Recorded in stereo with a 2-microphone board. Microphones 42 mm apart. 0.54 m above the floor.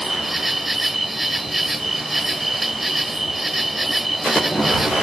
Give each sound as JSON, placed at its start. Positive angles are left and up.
{"t": 0.0, "sound": "an insect", "side_deg": -5}